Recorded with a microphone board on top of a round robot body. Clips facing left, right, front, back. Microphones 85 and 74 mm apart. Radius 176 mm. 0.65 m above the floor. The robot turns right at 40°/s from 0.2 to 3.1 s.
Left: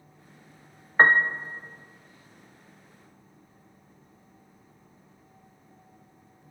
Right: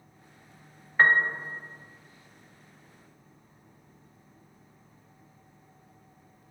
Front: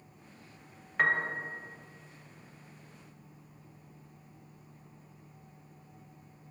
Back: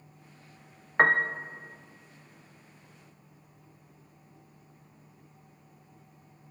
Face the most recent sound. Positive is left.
turn(degrees=-135)